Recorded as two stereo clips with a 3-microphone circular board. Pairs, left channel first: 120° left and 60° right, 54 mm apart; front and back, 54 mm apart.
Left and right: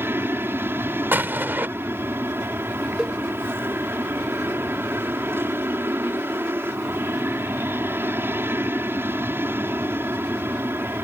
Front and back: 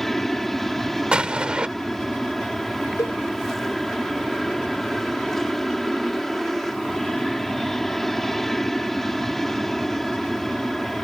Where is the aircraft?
85° right.